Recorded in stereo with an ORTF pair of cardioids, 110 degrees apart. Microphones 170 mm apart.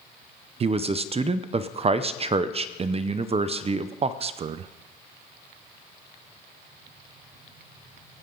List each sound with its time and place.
0.6 s a man speaking: 35° right, 0.7 m